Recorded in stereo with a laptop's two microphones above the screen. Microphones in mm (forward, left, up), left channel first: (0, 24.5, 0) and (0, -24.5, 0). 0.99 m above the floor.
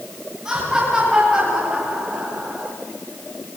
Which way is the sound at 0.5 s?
10° right (ahead or behind).